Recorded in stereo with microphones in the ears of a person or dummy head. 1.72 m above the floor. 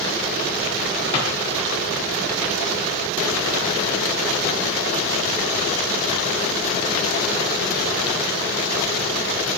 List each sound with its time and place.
1.1 s a drawer: 35° left (ahead or behind), 6 m